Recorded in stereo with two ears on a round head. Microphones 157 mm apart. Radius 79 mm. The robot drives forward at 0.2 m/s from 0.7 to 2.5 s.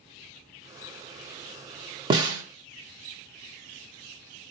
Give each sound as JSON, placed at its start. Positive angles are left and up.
{"t": 2.1, "sound": "a snare drum", "side_deg": -25, "distance_m": 0.8}